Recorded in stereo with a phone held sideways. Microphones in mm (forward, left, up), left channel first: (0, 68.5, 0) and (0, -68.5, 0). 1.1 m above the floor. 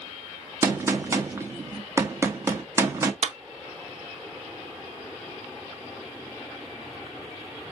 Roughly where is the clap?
Right.